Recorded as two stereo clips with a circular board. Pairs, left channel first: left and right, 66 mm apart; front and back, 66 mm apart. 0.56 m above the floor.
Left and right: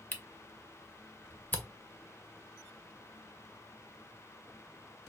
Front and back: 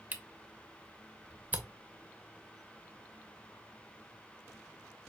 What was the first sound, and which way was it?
A camera shutter, 130° left.